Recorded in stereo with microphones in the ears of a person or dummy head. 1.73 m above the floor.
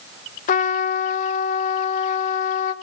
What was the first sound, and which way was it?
A trumpet, 50° left (ahead or behind).